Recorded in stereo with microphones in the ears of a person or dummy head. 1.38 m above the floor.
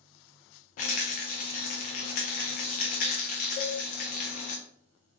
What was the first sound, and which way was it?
A rattle, 35° left (ahead or behind).